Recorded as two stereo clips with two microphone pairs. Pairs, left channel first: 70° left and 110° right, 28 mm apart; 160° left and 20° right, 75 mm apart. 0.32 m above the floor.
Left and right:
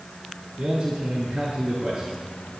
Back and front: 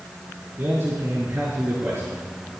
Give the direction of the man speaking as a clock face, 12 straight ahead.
3 o'clock.